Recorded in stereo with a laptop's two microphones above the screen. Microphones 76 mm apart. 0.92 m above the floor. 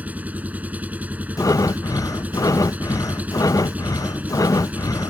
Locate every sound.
0.0 s an engine running: 20° right (ahead or behind)
1.4 s breathing: 50° left (ahead or behind)